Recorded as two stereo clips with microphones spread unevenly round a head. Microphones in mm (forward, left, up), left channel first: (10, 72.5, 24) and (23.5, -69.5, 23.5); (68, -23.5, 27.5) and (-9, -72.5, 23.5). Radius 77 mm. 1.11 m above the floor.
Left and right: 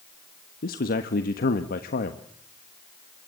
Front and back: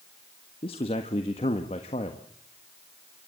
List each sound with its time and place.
0.6 s a man speaking: 75° left, 1.4 m